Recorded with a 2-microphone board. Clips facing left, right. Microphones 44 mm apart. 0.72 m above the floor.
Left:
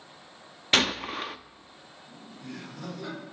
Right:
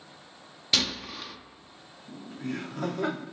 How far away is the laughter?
About 1.5 m.